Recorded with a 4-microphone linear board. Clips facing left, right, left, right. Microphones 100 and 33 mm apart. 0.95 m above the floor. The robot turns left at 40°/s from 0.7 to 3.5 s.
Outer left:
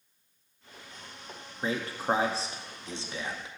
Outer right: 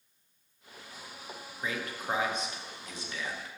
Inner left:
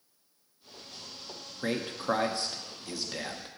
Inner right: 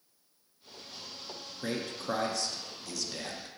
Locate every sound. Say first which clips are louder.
1.6 s a man speaking: outer left 5 dB, inner left 4 dB; 30° left (ahead or behind), 0.7 m; by 3.5 s 20° left (ahead or behind), 0.7 m